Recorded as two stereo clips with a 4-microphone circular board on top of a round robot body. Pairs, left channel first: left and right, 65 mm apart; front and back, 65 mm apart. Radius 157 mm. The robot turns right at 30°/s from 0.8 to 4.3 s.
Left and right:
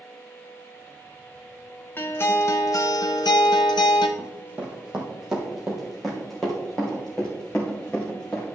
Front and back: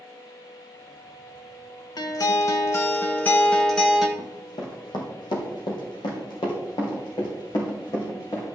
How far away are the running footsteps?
About 2.0 m.